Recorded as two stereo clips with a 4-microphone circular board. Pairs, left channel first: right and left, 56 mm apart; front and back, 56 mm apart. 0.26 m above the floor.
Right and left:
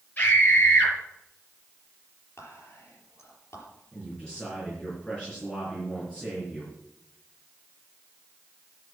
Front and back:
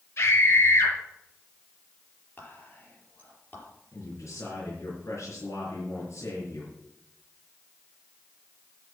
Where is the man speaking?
15° right, 4.5 m.